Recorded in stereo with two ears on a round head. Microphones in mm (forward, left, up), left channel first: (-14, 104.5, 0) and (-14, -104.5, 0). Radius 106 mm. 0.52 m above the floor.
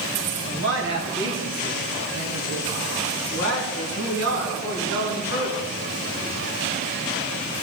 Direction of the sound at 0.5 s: 55° right (ahead or behind).